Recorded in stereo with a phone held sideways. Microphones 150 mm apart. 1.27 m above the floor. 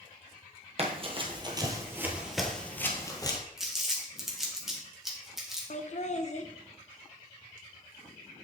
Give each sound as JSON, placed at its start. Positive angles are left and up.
{"t": 0.8, "sound": "running footsteps", "side_deg": -45, "distance_m": 1.7}
{"t": 3.6, "sound": "crumpling", "side_deg": 0, "distance_m": 1.6}
{"t": 5.7, "sound": "laughter", "side_deg": 50, "distance_m": 0.7}